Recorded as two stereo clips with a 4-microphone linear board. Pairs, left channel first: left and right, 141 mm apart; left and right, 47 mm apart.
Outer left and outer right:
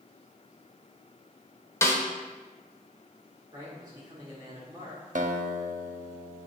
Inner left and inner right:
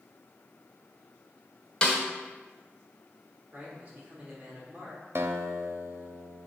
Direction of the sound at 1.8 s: 20° left (ahead or behind).